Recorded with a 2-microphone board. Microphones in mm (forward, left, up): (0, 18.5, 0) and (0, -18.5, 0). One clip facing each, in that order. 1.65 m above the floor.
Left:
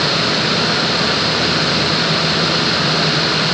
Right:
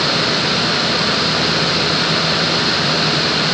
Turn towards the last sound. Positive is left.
No sound to turn to.